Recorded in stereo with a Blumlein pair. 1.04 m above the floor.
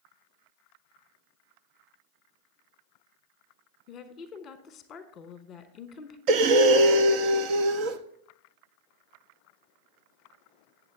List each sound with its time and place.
3.9 s a woman speaking: 25° left, 1.0 m
6.3 s breathing: 40° right, 0.7 m